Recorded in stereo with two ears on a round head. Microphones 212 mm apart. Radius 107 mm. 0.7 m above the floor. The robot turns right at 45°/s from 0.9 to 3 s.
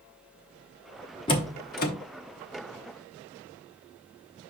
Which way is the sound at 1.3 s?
20° left (ahead or behind).